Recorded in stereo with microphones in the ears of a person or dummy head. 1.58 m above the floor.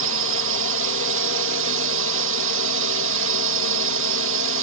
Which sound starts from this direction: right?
A drone, at 0.0 s.